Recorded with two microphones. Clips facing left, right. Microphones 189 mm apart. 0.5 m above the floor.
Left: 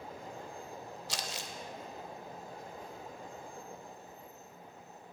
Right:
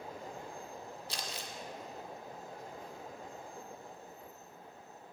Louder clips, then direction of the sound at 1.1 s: Left 2 dB; 80° left.